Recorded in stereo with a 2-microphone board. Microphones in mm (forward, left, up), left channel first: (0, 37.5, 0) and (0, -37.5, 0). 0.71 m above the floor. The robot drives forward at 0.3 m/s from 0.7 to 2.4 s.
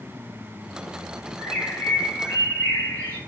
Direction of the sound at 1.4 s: 25° left (ahead or behind).